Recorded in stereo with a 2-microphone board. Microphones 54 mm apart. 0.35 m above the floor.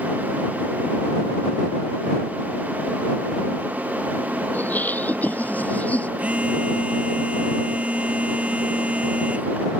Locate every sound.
4.5 s laughter: 35° left (ahead or behind); by 6.1 s 30° left (ahead or behind)
6.2 s a phone buzzing: 25° right (ahead or behind)